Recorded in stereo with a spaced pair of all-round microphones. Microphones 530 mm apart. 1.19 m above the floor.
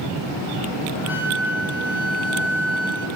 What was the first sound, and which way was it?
A flute, 5° right (ahead or behind).